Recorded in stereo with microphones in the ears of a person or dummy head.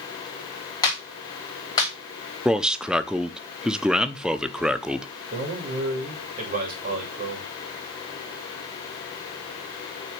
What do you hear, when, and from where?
0.8 s a clap: 20° left (ahead or behind), 3.5 m
2.5 s a man speaking: 5° right (ahead or behind), 0.7 m
5.3 s a man speaking: 45° right (ahead or behind), 3 m